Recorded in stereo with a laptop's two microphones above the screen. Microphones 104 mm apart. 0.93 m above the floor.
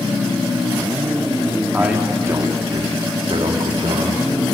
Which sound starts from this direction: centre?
A man speaking, at 1.7 s.